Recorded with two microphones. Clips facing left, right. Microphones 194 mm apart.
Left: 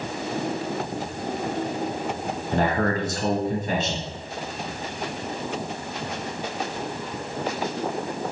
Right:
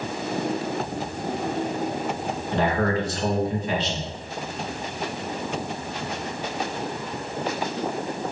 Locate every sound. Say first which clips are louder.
2.5 s a man speaking: even; 40° left (ahead or behind), 2 m